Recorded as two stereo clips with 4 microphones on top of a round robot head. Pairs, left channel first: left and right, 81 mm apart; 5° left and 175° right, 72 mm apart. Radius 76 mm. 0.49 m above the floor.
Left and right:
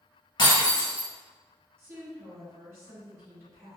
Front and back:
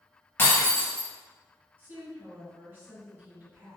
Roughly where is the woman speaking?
Behind right.